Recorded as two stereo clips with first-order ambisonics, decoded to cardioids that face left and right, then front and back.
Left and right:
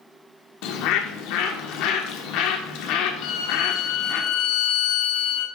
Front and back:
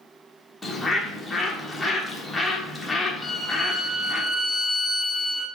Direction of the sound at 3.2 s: 85° left.